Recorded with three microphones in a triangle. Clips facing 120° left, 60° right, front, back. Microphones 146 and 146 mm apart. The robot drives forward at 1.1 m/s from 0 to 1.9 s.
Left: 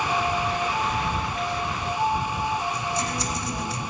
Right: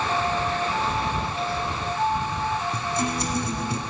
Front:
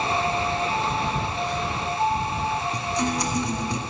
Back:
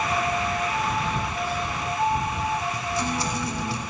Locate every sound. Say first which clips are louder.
1.1 s a phone buzzing: right 1 dB, front 1 dB; 55° left, 1.3 m; by 2.6 s 145° left, 1.4 m
2.7 s a guitar: right 2 dB, front 2 dB; 70° right, 1.8 m